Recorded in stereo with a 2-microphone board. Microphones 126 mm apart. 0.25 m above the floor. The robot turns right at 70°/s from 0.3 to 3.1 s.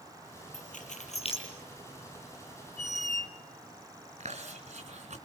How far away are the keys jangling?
About 4.5 m.